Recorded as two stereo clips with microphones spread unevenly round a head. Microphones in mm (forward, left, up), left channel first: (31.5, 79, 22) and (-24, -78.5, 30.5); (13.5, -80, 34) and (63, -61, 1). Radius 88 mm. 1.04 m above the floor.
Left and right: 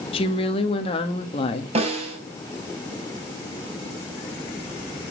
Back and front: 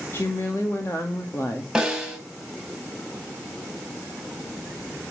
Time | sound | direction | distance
0.1 | a woman speaking | 125° left | 1.8 m
1.8 | a snare drum | 55° right | 5 m